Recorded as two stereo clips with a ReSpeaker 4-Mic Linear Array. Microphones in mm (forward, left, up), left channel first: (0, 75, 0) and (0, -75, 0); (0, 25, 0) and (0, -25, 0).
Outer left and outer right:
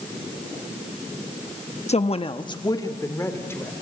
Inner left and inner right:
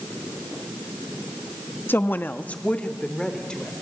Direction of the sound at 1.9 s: 45° left (ahead or behind).